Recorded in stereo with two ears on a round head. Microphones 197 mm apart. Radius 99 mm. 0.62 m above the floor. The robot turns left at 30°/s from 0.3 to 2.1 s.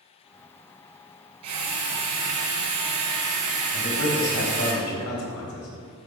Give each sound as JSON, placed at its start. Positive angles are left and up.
{"t": 1.4, "sound": "a drill", "side_deg": -80, "distance_m": 3.5}
{"t": 3.7, "sound": "a man speaking", "side_deg": 70, "distance_m": 3.5}